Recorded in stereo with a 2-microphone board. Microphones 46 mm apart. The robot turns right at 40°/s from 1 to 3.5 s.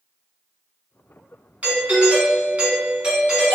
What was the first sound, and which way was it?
A doorbell, 105° right.